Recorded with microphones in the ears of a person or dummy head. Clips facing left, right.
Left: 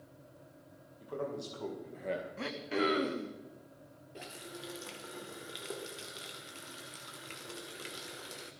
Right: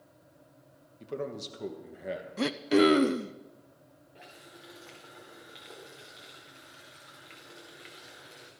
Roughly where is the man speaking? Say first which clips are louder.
Right 2 dB; right.